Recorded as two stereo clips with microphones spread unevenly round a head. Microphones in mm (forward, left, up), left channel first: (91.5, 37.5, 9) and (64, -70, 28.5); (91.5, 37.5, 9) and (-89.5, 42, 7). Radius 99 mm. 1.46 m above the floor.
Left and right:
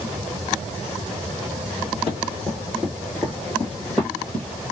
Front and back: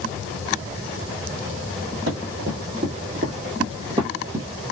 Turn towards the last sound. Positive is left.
turn(degrees=175)